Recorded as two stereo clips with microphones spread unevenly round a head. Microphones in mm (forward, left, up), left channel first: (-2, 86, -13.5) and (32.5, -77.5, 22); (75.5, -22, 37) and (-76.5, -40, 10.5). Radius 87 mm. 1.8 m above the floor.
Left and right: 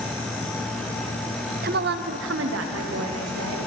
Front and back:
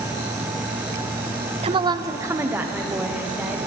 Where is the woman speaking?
120° right, 0.6 m; by 3.7 s 90° right, 2 m.